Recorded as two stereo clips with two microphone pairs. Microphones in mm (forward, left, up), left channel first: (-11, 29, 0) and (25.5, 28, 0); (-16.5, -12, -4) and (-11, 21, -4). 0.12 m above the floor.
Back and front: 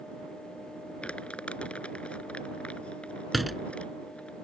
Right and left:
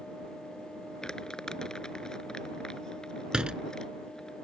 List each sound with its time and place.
1.0 s crumpling: 155° right
3.3 s a door slam: 85° left